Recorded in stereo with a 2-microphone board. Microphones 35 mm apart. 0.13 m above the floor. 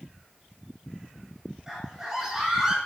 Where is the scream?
10° right (ahead or behind), 6.5 m.